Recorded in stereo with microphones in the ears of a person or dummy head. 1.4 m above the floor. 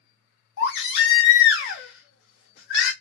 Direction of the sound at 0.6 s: 60° left (ahead or behind).